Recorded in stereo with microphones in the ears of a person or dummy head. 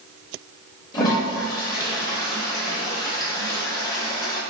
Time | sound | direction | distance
0.9 | a toilet flushing | 20° left (ahead or behind) | 0.9 m